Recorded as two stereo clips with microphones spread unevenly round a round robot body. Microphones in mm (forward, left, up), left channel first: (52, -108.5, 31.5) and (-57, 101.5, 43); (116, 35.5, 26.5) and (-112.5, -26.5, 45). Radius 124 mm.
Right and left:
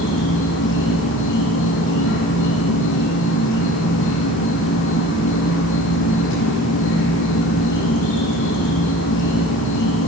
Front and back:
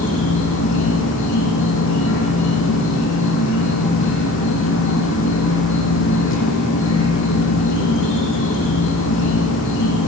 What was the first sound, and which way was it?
An insect, 25° right.